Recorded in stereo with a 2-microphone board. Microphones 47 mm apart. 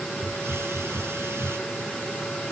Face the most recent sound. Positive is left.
turn(degrees=-65)  # may be behind; listen again after turning